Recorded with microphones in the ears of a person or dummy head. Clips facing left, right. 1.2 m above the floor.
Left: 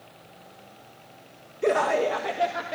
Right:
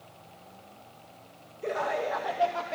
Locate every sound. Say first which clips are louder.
1.6 s laughter: left 8 dB; 75° left (ahead or behind), 1.3 m; by 2.7 s 15° left (ahead or behind), 1.8 m